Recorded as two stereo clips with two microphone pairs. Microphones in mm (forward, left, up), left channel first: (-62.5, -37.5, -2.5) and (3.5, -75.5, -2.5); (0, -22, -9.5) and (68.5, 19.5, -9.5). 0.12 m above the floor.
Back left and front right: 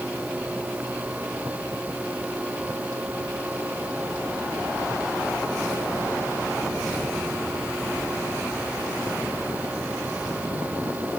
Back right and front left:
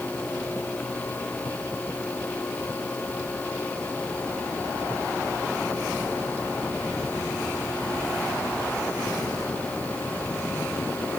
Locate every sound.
Only background noise.